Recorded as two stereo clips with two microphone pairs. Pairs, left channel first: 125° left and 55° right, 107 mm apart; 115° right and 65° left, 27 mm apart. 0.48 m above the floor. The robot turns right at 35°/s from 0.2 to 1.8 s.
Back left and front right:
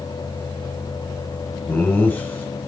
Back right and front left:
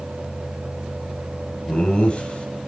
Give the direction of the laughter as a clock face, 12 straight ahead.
5 o'clock.